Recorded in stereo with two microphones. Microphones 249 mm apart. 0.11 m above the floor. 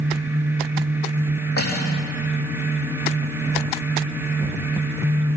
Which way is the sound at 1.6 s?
70° left (ahead or behind).